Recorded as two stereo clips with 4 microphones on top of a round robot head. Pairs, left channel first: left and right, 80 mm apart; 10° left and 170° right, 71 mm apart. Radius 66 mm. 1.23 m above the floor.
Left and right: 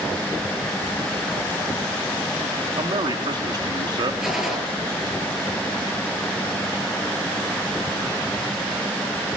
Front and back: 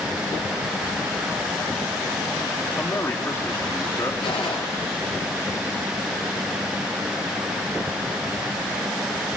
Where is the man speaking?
55° right, 2.5 m.